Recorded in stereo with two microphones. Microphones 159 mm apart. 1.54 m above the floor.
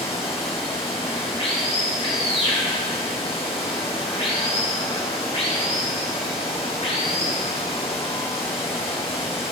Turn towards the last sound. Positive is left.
turn(degrees=40)  # may be behind; listen again after turning